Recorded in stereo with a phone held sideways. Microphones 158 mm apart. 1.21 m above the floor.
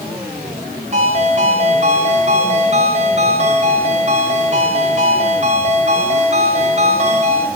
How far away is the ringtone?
About 4 m.